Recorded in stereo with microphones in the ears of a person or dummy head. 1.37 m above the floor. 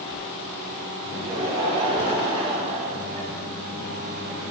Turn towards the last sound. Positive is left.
turn(degrees=-45)  # may be behind; listen again after turning